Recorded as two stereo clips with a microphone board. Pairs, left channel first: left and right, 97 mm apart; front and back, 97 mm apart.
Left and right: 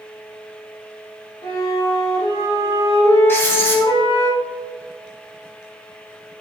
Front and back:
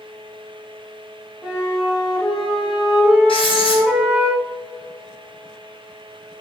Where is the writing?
25° left, 3.5 m.